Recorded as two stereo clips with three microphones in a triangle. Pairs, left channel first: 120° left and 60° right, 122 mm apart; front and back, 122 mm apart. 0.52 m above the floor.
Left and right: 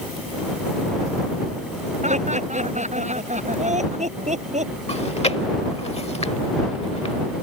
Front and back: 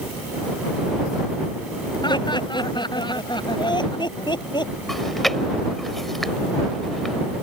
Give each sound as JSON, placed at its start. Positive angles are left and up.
{"t": 2.0, "sound": "laughter", "azimuth_deg": -50}
{"t": 4.9, "sound": "chewing", "azimuth_deg": 90}